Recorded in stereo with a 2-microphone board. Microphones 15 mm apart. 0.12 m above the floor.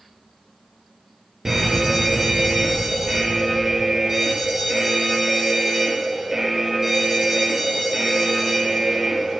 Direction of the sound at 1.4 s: 45° right (ahead or behind).